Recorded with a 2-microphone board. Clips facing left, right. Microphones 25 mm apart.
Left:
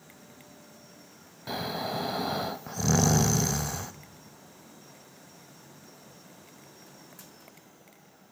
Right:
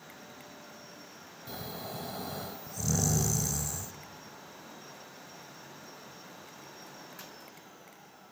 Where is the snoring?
45° left (ahead or behind), 0.5 m.